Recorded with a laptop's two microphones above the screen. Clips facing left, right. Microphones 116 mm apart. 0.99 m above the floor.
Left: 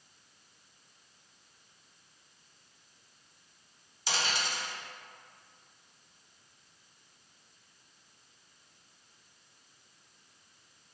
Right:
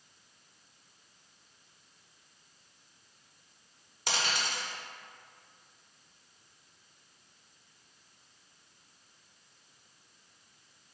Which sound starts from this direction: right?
A dropped coin, at 4.1 s.